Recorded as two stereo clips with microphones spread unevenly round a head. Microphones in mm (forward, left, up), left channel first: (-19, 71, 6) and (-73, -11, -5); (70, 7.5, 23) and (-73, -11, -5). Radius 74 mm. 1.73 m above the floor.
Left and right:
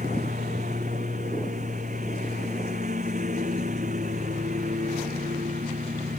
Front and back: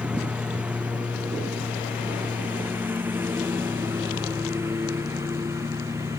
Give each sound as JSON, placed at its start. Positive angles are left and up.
{"t": 0.0, "sound": "a lawn mower", "azimuth_deg": -90}